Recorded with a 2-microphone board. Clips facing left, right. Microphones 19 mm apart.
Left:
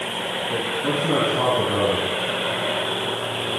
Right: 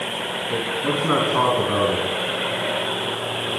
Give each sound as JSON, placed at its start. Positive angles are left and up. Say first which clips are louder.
{"t": 0.5, "sound": "a man speaking", "louder": "right 1 dB", "side_deg": -60, "distance_m": 4.0}